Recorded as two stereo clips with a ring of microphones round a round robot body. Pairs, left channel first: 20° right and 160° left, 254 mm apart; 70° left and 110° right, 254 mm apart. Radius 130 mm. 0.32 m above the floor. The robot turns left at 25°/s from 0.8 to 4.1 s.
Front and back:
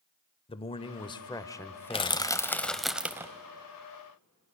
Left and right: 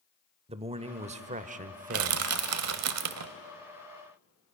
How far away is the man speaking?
About 0.9 m.